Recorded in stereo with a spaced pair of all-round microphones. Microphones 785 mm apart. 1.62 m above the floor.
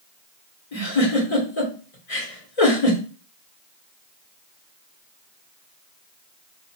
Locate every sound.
0.7 s a giggle: 45° left (ahead or behind), 1.6 m